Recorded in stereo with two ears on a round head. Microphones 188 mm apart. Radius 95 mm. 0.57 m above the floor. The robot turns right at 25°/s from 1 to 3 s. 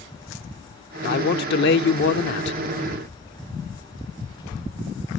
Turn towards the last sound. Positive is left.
turn(degrees=110)